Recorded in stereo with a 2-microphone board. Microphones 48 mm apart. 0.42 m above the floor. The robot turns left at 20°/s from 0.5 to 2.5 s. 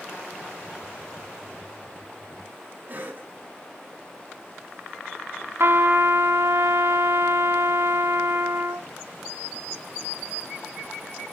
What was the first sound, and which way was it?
A cough, 35° right (ahead or behind).